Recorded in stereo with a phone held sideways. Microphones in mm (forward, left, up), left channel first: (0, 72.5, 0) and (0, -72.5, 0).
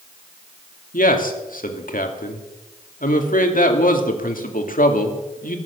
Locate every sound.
0.9 s a man speaking: 75° left (ahead or behind), 2.5 m